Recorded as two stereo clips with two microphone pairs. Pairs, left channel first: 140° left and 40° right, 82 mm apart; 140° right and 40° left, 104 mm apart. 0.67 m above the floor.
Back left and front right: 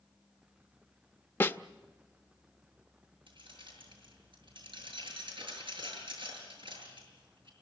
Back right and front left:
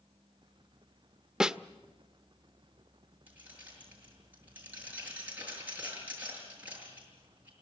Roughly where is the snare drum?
Behind left.